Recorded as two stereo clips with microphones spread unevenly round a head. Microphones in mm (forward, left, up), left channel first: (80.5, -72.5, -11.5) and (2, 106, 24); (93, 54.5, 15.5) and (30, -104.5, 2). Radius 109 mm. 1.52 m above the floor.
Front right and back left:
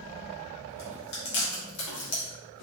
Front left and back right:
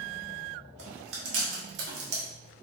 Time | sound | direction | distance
0.8 | chewing | 90° right | 1.3 m